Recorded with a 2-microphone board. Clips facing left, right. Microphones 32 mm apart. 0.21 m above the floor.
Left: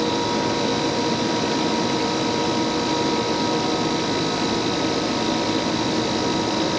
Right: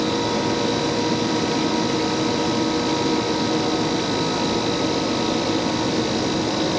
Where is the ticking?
No ticking in this recording.